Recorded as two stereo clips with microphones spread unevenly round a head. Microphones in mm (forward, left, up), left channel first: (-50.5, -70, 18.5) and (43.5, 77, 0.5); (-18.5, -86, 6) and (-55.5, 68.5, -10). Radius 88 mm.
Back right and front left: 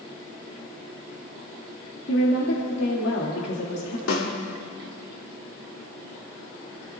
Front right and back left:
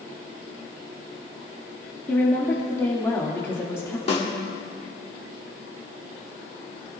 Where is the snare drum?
130° right, 2.5 m.